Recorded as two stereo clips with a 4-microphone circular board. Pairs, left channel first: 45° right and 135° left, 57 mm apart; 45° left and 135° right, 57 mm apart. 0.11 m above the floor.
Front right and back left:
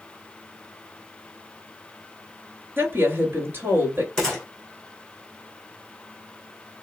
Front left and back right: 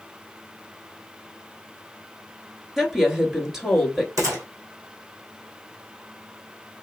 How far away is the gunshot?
About 3 m.